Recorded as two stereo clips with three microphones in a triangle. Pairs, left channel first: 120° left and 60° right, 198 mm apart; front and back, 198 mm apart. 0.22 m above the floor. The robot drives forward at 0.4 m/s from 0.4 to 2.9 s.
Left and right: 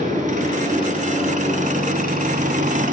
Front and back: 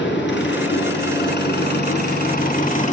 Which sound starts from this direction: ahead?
An engine running, at 0.0 s.